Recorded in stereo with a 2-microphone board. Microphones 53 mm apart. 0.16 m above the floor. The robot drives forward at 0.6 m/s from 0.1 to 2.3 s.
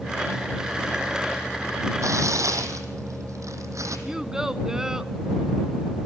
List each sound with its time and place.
2.0 s tearing paper: 75° right (ahead or behind), 1.9 m; by 4.0 s 70° right (ahead or behind), 1.9 m
4.1 s a child speaking: 10° right (ahead or behind), 0.7 m